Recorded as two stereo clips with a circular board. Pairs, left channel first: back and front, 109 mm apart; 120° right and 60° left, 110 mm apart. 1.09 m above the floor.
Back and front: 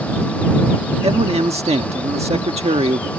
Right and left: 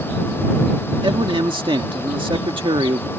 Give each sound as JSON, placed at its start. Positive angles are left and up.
{"t": 1.0, "sound": "a man speaking", "azimuth_deg": 20}